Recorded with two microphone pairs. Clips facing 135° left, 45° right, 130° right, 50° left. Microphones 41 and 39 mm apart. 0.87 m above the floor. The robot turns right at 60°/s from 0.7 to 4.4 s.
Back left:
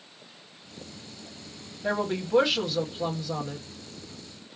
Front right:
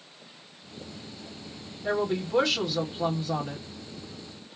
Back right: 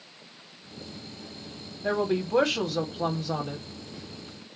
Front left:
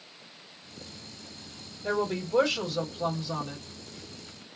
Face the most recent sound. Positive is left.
turn(degrees=-25)